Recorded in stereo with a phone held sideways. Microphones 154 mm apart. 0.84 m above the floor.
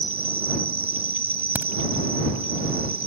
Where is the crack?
15° right (ahead or behind).